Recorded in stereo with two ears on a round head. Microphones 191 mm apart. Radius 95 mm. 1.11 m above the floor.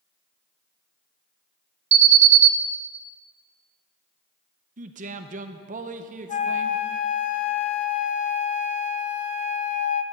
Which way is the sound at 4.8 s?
35° right (ahead or behind).